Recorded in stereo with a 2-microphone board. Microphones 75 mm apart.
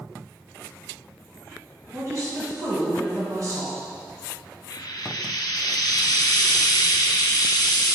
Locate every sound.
1.9 s a woman speaking: 45° right (ahead or behind), 1.6 m
4.7 s frying: 65° left (ahead or behind), 0.7 m